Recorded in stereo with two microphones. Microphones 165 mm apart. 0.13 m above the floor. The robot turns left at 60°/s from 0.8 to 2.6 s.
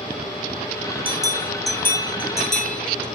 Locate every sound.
1.1 s a bell: 30° right (ahead or behind), 3 m; by 3.0 s 50° left (ahead or behind), 3 m